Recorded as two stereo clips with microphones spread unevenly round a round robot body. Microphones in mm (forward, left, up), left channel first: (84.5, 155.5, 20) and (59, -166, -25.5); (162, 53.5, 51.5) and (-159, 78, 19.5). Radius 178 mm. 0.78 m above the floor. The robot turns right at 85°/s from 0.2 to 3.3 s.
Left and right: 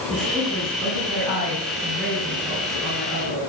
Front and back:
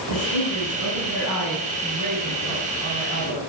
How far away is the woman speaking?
About 8.5 m.